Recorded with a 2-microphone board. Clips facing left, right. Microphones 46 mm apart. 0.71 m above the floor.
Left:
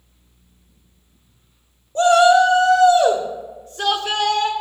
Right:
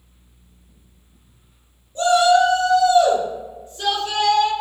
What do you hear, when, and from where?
1.9 s a shout: 55° left (ahead or behind), 1.9 m; by 4.5 s 70° left (ahead or behind), 3 m